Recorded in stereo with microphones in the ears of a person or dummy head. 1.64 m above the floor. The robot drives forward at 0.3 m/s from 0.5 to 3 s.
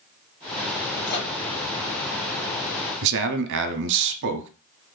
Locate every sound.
1.1 s a microwave: 55° left (ahead or behind), 1.7 m
3.0 s a man speaking: 65° right (ahead or behind), 0.6 m